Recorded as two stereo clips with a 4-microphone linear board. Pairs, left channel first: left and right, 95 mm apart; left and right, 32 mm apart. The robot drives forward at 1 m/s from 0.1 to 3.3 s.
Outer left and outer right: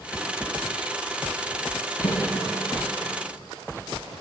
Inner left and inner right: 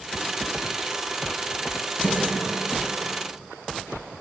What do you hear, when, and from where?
2.0 s a snare drum: 70° left (ahead or behind), 2.5 m; by 2.2 s 65° left (ahead or behind), 2.5 m